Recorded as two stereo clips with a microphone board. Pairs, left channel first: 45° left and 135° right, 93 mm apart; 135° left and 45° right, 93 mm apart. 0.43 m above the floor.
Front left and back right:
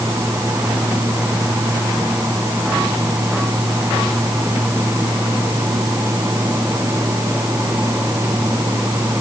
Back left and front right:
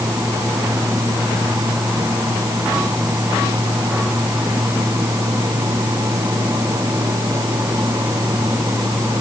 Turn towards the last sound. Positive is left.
No sound to turn to.